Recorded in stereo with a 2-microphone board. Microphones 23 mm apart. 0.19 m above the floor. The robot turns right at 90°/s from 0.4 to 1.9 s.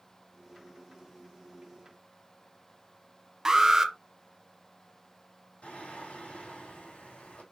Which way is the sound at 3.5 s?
25° right (ahead or behind).